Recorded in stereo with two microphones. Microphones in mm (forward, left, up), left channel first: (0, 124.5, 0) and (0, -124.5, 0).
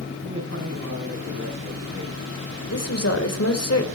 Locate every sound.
0.2 s a man speaking: 75° right (ahead or behind), 7 m
2.7 s a woman speaking: 75° left (ahead or behind), 3 m